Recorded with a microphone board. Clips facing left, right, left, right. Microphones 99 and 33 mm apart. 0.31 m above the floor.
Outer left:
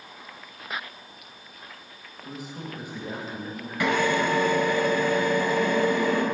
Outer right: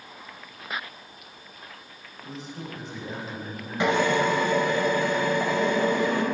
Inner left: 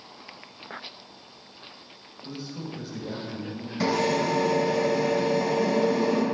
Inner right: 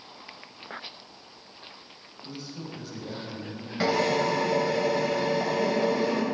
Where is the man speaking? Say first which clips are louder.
Even, inner left 3 dB; 10° left (ahead or behind), 0.9 m.